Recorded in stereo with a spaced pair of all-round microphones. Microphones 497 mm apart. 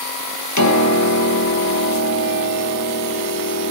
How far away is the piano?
About 1.6 m.